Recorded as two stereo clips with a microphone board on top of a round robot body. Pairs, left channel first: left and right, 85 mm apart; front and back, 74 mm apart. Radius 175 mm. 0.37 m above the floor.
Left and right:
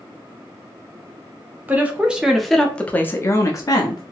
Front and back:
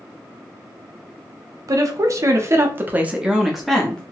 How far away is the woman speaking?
About 1.1 m.